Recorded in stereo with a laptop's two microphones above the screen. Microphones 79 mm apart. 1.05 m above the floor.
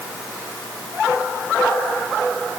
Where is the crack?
I don't hear a crack.